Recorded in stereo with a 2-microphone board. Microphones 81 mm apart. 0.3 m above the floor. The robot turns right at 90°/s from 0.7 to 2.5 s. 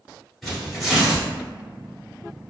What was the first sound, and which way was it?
Tearing paper, 175° left.